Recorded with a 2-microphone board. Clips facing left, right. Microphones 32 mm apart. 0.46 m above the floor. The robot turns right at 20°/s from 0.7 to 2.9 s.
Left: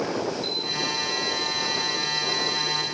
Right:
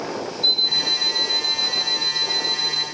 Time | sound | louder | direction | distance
0.4 | an alarm clock | right 8 dB | 130° right | 1.0 m